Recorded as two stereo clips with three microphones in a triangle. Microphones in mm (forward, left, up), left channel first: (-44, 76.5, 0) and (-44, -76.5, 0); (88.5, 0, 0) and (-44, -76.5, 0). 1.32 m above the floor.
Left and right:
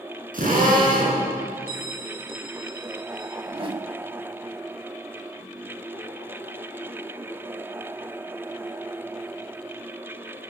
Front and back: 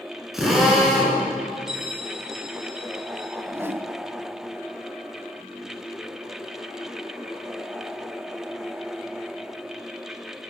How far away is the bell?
About 2.5 m.